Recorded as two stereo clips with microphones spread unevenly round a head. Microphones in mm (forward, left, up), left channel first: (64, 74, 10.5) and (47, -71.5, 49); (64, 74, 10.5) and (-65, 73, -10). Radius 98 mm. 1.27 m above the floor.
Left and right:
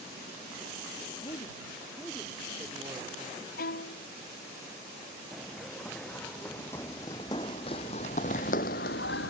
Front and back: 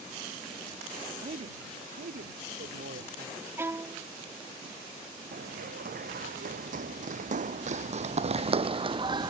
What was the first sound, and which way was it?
A man speaking, 145° left.